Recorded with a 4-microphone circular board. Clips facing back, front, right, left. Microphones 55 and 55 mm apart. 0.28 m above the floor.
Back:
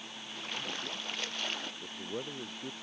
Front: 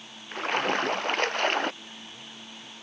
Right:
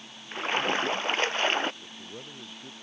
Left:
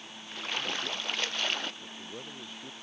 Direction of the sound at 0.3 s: 35° right.